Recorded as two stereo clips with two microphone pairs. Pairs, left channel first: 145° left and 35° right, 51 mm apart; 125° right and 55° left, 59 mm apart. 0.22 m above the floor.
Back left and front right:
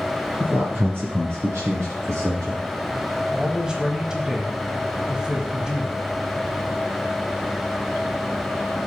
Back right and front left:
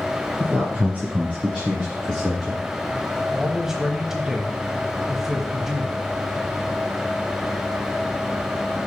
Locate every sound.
0.4 s a man speaking: 15° left, 1.7 m; by 2.6 s 25° right, 4 m
3.3 s a man speaking: straight ahead, 1.0 m